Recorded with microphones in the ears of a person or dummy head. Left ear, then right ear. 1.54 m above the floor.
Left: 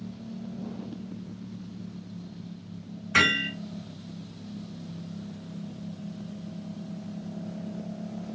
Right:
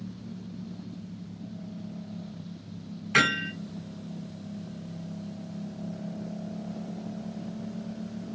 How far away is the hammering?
About 2.5 m.